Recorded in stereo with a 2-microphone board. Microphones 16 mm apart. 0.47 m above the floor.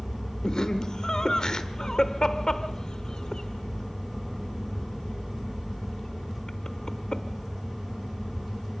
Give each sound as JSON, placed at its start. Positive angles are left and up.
{"t": 0.4, "sound": "laughter", "side_deg": 50, "distance_m": 1.1}